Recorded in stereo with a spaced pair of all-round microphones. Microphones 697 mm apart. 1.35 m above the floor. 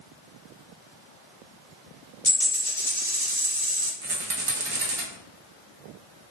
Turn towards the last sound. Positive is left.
turn(degrees=-50)  # may be behind; listen again after turning